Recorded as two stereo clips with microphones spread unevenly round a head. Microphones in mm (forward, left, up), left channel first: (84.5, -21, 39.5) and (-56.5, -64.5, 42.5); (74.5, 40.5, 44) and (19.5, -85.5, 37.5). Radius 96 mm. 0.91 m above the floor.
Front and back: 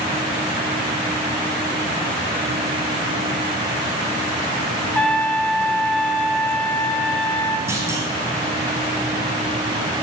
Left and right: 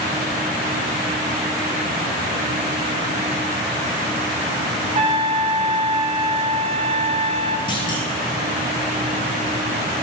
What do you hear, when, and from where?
5.0 s a trumpet: 65° right, 0.5 m
7.7 s a clunk: 125° left, 1.0 m